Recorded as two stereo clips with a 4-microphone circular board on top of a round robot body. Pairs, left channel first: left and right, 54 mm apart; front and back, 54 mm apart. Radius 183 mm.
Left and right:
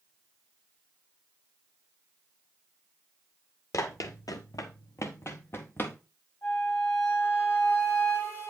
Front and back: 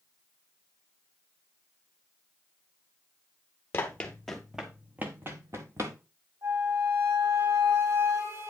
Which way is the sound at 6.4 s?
145° left.